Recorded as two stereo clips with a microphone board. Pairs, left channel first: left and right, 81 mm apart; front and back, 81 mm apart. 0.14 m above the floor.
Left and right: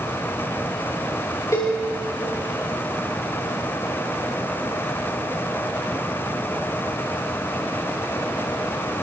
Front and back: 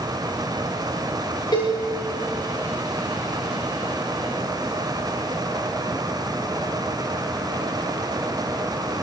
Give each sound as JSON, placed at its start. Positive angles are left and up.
{"t": 1.5, "sound": "a cowbell", "azimuth_deg": 40, "distance_m": 6.5}